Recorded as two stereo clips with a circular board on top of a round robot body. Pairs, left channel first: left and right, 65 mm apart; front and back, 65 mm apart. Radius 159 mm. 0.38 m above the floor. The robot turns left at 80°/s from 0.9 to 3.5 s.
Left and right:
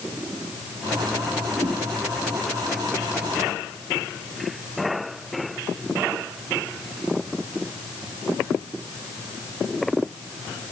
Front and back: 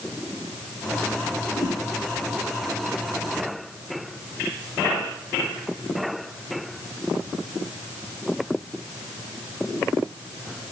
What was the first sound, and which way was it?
A whoosh, 125° right.